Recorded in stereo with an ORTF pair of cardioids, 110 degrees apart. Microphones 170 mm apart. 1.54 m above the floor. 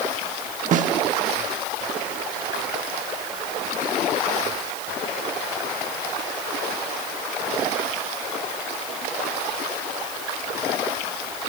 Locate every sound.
0.7 s a snare drum: 50° right, 1.1 m